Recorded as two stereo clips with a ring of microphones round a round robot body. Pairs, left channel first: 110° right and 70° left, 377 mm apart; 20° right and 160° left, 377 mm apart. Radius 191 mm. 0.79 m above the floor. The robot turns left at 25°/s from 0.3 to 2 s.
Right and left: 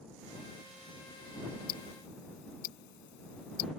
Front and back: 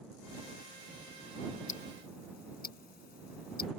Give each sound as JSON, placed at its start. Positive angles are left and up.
{"t": 1.7, "sound": "ticking", "azimuth_deg": -80}